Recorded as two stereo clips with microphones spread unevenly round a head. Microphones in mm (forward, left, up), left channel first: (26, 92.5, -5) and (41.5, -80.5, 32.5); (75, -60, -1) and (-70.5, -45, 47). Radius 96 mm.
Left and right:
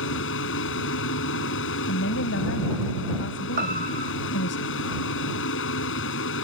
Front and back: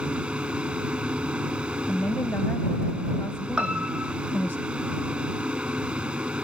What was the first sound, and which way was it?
A fan, 90° left.